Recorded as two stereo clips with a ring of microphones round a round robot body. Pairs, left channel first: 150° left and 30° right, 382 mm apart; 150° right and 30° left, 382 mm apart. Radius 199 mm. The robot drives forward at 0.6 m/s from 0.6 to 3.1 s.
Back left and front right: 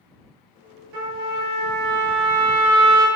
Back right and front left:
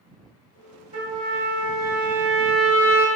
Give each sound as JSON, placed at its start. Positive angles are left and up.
{"t": 0.9, "sound": "a trumpet", "azimuth_deg": -45, "distance_m": 2.0}